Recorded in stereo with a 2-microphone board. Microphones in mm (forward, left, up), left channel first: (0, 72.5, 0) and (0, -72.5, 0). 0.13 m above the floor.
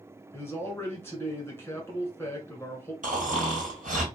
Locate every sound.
0.3 s a man speaking: 15° left (ahead or behind), 1.4 m
3.0 s snoring: 65° right (ahead or behind), 1.6 m